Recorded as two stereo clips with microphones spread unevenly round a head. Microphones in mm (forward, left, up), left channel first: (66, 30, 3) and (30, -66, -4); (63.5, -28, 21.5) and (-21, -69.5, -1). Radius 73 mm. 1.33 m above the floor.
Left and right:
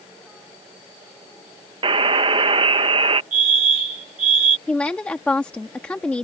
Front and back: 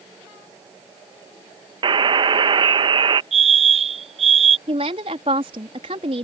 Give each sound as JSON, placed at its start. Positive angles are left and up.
{"t": 1.8, "sound": "a buzzer", "azimuth_deg": -120}
{"t": 3.3, "sound": "a fire alarm", "azimuth_deg": -150}
{"t": 4.7, "sound": "a woman speaking", "azimuth_deg": 150}